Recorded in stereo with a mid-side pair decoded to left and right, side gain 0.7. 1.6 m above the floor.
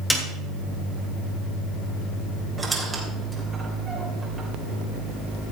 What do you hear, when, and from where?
0.1 s a snare drum: 10° left, 3 m
2.6 s a squeak: 20° right, 3 m